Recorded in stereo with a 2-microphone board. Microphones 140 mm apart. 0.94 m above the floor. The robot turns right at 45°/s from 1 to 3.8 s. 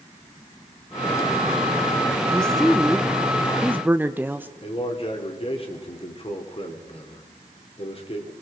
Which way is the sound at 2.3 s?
5° left (ahead or behind).